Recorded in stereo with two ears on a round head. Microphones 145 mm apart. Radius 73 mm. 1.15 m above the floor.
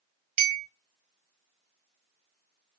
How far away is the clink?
About 0.8 m.